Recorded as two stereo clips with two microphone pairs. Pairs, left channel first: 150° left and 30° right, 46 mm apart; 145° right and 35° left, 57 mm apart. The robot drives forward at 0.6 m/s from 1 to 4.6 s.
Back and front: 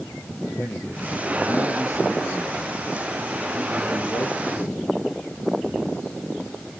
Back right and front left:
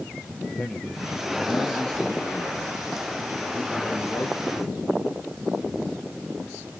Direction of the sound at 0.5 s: 135° left.